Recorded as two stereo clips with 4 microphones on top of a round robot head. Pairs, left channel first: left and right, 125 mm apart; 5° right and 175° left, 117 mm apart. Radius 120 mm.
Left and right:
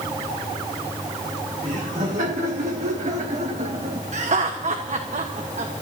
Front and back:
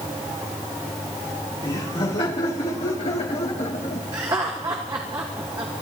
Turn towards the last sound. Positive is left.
turn(degrees=-120)